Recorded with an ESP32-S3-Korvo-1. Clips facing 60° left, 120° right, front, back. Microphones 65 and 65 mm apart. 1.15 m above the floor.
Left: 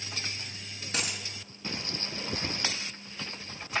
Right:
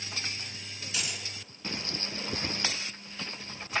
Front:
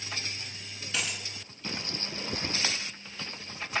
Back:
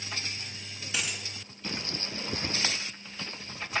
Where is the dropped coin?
100° left, 4 m.